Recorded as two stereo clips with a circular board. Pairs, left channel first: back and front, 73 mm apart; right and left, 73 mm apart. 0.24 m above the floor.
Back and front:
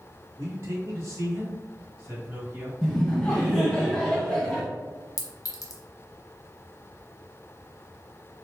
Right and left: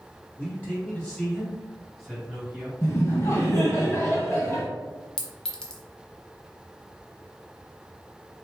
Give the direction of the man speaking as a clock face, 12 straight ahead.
1 o'clock.